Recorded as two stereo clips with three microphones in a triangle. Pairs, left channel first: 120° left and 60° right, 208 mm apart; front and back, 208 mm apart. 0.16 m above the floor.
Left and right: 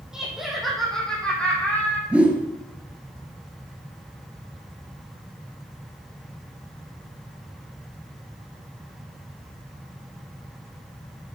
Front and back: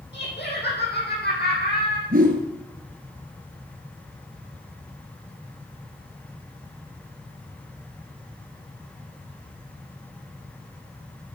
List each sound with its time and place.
0.1 s laughter: 25° left, 7 m; by 2.0 s 40° left, 7 m
2.1 s a whoosh: 145° right, 2.5 m